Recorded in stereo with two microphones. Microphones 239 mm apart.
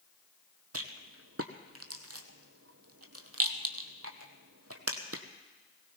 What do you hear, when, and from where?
0.7 s a rattle: 80° right, 1.4 m